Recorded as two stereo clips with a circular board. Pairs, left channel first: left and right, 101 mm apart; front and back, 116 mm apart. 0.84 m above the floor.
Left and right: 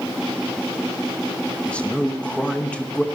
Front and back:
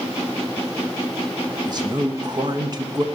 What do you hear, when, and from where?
1.6 s a man speaking: 160° left, 0.8 m